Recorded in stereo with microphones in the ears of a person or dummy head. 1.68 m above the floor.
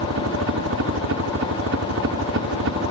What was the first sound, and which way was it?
A helicopter, 60° right (ahead or behind).